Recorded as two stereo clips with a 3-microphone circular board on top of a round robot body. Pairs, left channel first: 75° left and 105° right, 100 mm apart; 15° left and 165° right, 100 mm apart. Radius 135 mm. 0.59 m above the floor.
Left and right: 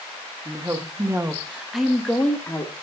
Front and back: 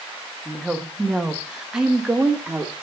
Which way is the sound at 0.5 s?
70° right.